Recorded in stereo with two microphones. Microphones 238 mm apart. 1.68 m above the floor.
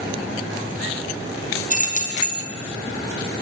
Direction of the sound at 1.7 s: 35° left (ahead or behind).